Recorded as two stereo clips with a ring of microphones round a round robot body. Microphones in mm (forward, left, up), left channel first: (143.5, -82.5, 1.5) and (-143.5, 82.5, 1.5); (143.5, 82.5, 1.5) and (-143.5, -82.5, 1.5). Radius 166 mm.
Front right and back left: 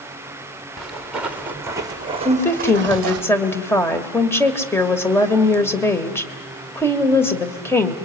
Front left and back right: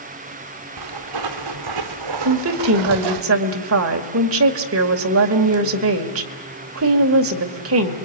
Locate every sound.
0.8 s footsteps: 120° right, 2.5 m; by 3.2 s 170° right, 1.1 m
2.2 s a woman speaking: 110° right, 1.7 m